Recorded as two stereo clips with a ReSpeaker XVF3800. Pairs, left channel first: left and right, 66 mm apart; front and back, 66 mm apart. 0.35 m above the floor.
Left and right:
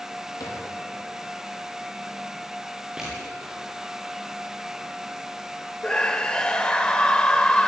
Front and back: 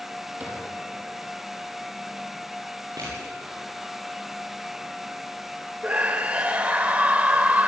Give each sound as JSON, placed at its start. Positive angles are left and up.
{"t": 0.4, "sound": "a cupboard door", "azimuth_deg": 115, "distance_m": 6.5}
{"t": 3.0, "sound": "crushing", "azimuth_deg": -165, "distance_m": 8.0}
{"t": 5.8, "sound": "a scream", "azimuth_deg": 150, "distance_m": 0.9}